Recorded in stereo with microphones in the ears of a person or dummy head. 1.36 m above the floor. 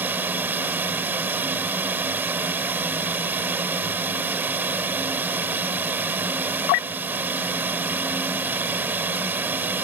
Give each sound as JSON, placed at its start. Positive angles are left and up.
{"t": 0.0, "sound": "running water", "side_deg": -10}